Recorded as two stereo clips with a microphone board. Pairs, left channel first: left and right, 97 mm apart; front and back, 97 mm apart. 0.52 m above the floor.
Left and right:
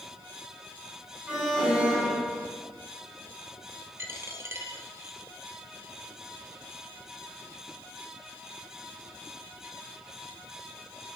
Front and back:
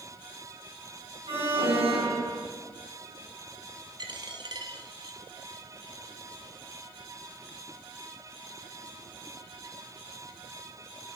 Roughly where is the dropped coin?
Behind right.